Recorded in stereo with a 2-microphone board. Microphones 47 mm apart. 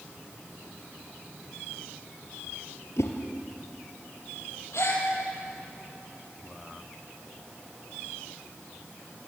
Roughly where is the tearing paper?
I don't hear tearing paper.